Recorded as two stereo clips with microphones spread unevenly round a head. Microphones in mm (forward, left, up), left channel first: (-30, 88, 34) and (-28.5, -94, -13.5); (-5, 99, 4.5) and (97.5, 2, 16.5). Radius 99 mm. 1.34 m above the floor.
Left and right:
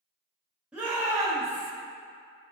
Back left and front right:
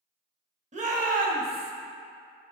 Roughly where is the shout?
Ahead.